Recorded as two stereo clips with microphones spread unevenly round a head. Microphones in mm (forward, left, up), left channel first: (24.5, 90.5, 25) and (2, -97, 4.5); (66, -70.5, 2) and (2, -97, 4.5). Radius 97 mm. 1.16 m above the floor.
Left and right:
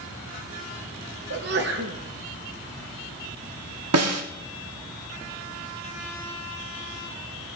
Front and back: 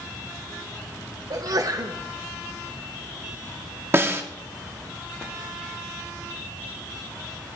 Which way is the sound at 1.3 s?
130° right.